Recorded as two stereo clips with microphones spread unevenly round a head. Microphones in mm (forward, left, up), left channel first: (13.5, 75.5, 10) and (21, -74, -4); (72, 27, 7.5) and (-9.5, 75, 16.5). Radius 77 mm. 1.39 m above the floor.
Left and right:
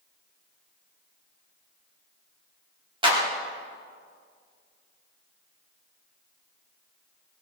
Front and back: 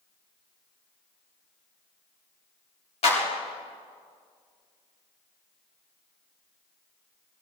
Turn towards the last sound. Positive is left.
turn(degrees=-30)